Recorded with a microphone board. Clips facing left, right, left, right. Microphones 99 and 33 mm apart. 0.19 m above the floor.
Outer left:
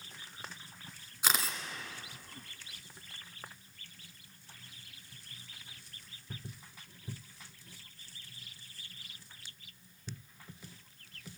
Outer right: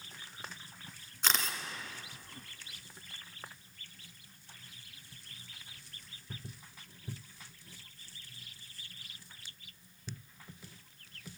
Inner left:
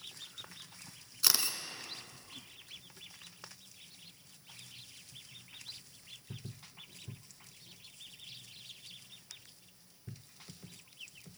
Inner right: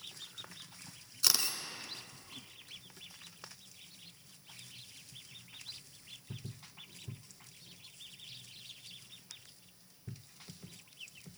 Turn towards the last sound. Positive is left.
turn(degrees=10)  # may be behind; listen again after turning